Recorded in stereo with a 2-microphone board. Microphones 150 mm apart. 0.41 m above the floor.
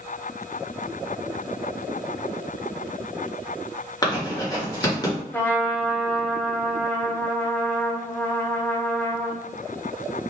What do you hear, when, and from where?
4.0 s writing: 25° left (ahead or behind), 1.0 m
5.3 s a trumpet: 15° left (ahead or behind), 0.5 m